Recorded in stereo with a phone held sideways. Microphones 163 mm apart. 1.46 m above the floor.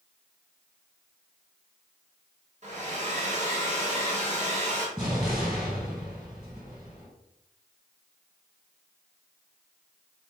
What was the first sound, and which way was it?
A hair dryer, 50° right (ahead or behind).